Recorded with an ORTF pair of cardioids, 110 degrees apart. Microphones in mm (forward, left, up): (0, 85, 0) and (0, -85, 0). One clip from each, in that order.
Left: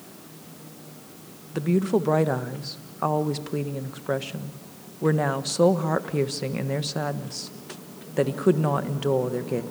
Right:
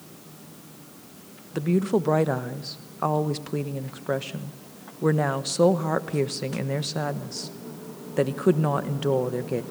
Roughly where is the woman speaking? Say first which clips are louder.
Even; ahead.